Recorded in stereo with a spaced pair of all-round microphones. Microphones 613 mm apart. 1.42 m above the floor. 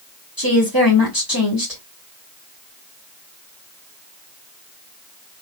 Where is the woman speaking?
30° left (ahead or behind), 2 m.